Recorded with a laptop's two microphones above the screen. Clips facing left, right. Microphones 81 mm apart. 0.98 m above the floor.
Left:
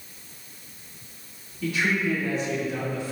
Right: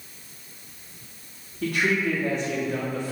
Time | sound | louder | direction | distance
1.6 | a man speaking | right 1 dB | 60° right (ahead or behind) | 2.5 m